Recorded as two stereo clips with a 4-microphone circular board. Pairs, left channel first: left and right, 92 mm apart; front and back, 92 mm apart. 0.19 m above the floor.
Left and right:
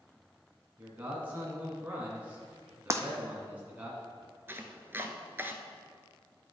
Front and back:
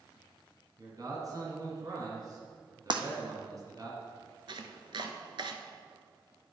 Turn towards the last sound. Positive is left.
turn(degrees=-155)